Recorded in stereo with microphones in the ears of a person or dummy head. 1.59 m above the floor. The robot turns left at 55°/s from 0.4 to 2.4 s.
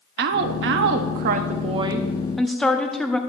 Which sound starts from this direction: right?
A woman speaking, at 0.2 s.